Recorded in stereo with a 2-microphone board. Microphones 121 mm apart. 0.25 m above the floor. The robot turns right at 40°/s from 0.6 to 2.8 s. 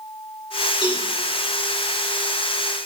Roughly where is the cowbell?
Right.